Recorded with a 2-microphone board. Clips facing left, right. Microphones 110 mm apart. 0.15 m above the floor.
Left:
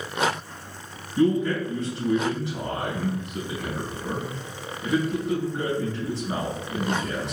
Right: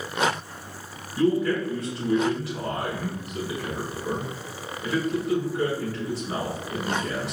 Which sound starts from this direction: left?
A man speaking, at 1.2 s.